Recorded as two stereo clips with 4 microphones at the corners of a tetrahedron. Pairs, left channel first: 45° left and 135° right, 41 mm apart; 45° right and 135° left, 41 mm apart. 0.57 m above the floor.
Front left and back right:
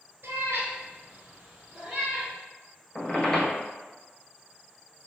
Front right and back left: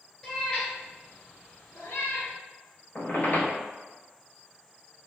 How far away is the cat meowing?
About 1.0 m.